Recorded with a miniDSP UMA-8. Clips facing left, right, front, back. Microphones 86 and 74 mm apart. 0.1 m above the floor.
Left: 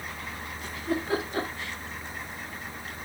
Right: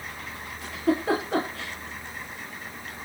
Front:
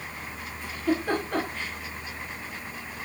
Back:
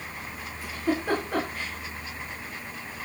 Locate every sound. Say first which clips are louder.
0.6 s a giggle: right 7 dB, front 1 dB; 100° right, 9.5 m